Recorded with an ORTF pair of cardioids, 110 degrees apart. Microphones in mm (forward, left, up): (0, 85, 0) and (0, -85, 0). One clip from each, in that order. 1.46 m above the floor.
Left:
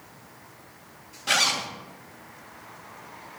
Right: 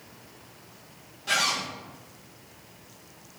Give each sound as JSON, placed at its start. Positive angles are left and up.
{"t": 1.3, "sound": "a zipper", "azimuth_deg": 30, "distance_m": 0.5}